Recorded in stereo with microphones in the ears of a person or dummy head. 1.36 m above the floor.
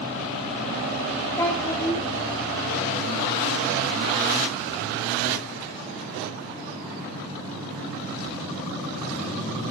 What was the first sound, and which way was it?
A child speaking, 15° left (ahead or behind).